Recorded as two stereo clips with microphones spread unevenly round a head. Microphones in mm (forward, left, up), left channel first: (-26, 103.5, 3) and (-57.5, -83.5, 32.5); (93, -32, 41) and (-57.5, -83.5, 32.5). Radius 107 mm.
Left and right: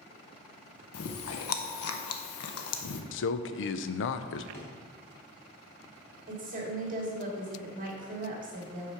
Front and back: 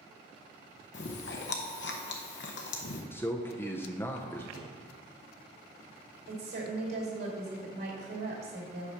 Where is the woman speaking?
145° right, 2.5 m.